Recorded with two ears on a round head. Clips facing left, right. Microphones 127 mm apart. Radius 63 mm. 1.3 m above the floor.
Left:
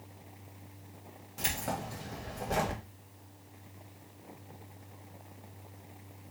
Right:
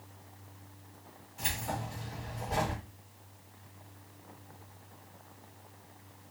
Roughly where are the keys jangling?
Left.